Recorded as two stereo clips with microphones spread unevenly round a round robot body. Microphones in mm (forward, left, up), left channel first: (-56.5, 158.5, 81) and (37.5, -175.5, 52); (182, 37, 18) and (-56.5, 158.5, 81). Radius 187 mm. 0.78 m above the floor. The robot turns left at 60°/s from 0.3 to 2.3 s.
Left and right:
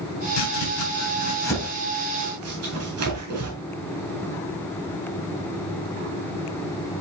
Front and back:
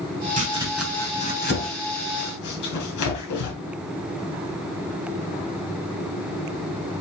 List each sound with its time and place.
0.4 s chopping: 90° left, 3 m; by 3.5 s 25° right, 3 m